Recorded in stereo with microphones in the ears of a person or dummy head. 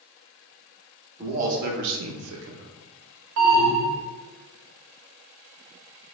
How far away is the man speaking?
About 0.8 m.